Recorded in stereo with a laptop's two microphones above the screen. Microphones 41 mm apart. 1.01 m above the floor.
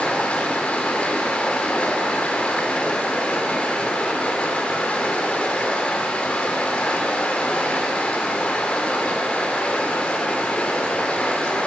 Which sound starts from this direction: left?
Running water, at 0.0 s.